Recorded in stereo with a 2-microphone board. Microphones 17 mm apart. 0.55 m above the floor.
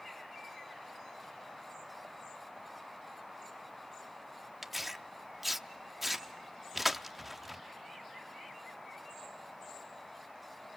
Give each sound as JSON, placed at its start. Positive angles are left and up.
{"t": 4.6, "sound": "tearing paper", "side_deg": -5, "distance_m": 0.8}